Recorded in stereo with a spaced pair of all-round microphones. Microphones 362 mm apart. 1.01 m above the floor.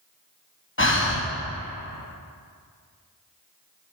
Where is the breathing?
35° left (ahead or behind), 0.9 m.